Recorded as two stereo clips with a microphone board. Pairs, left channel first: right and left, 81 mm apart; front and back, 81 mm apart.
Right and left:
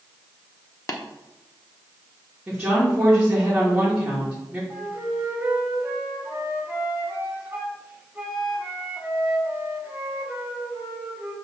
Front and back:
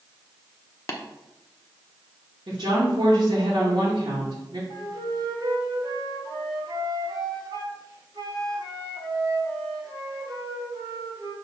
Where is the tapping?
45° right, 0.9 m.